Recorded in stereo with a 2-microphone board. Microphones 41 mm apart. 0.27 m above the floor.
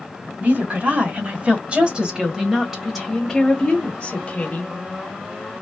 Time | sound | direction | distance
0.4 | a woman speaking | 45° right (ahead or behind) | 1.8 m